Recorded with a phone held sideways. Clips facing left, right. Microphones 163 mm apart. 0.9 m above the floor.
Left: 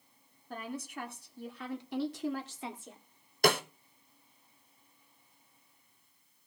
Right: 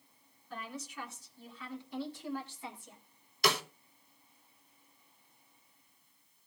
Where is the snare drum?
45° left (ahead or behind), 1.0 m.